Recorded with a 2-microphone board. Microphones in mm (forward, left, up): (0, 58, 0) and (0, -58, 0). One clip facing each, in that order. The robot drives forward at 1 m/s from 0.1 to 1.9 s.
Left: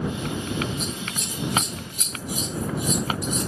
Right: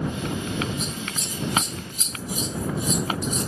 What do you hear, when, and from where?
0.8 s scissors: 20° right (ahead or behind), 2.5 m; by 3.5 s 35° right (ahead or behind), 1.7 m